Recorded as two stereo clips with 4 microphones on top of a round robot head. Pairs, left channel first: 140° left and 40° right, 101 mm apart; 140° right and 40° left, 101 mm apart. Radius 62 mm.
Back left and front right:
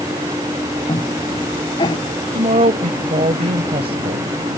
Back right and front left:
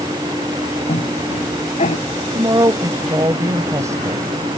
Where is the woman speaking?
20° right.